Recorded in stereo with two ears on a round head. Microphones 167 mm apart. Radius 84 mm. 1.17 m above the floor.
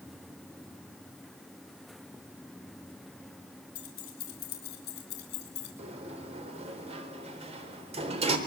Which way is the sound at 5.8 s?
35° right (ahead or behind).